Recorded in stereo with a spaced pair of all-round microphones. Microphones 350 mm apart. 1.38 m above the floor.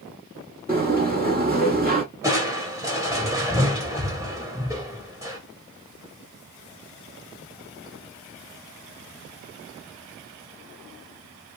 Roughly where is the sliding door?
Right.